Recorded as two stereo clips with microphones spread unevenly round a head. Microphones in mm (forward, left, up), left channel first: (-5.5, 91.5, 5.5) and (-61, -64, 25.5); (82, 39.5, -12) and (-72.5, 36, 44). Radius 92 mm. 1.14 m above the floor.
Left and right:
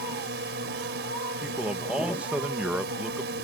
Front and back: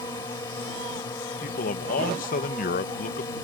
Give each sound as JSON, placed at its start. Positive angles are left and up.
{"t": 0.0, "sound": "a drone", "azimuth_deg": -70}
{"t": 1.4, "sound": "a man speaking", "azimuth_deg": -25}